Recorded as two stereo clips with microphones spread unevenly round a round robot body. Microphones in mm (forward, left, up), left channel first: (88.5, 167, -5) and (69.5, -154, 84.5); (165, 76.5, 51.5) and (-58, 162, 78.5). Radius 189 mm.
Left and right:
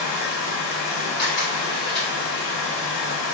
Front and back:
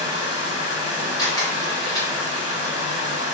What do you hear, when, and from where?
0.0 s running water: 85° left, 1.7 m
1.2 s a camera shutter: 30° left, 1.4 m